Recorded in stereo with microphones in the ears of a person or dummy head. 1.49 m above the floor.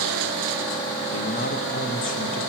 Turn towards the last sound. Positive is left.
turn(degrees=45)  # may be behind; listen again after turning